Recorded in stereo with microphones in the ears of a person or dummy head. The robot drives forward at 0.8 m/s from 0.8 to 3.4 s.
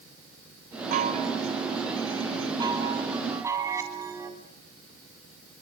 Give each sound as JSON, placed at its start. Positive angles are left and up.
{"t": 0.9, "sound": "a chime", "side_deg": -45, "distance_m": 1.6}